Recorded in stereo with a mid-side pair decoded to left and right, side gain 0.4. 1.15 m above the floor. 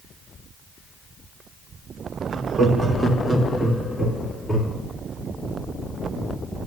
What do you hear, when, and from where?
2.3 s laughter: 55° right, 1.3 m; by 4.8 s 5° right, 3 m